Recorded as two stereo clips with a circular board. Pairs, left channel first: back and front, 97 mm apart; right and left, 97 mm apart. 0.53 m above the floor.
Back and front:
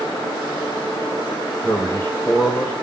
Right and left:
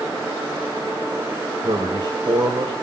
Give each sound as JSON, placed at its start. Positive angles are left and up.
{"t": 1.6, "sound": "a man speaking", "azimuth_deg": 115, "distance_m": 2.5}